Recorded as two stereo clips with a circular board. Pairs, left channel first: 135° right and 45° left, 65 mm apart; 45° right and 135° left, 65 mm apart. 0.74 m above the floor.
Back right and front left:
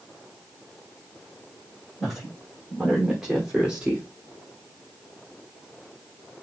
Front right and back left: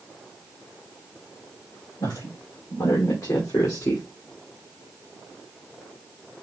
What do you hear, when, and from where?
2.0 s a woman speaking: 50° right, 3 m; by 4.0 s 20° right, 1.4 m